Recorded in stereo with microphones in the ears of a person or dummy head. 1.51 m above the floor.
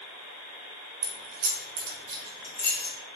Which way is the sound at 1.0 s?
75° right (ahead or behind).